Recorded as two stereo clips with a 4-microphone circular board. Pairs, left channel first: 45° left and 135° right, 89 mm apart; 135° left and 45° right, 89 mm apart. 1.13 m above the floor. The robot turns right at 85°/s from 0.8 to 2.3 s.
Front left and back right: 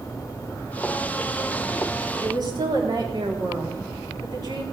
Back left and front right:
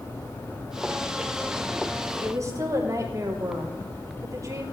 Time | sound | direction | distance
2.2 | a woman speaking | 105° right | 3.5 m